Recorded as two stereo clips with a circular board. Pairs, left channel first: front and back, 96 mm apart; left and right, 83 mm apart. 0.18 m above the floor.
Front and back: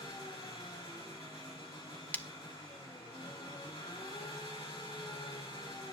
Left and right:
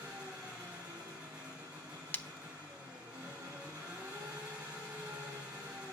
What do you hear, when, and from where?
0.0 s an engine running: 15° right, 7 m
2.1 s breaking glass: 50° left, 0.6 m